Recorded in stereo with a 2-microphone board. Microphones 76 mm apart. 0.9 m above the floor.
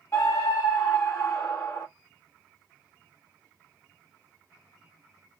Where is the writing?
I don't hear writing.